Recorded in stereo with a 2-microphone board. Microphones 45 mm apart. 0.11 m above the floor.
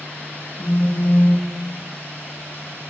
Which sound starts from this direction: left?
A phone buzzing, at 0.6 s.